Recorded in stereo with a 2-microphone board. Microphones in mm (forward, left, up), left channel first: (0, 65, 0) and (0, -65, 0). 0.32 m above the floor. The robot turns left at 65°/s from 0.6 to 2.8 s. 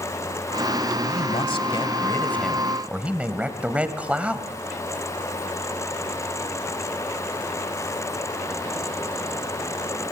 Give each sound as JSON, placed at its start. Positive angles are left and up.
{"t": 1.0, "sound": "a man speaking", "azimuth_deg": 100, "distance_m": 1.8}